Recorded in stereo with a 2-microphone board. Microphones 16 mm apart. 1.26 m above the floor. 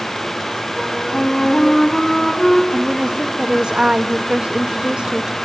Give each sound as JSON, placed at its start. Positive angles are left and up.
{"t": 0.8, "sound": "a flute", "side_deg": 35, "distance_m": 3.5}
{"t": 2.7, "sound": "a woman speaking", "side_deg": -70, "distance_m": 1.8}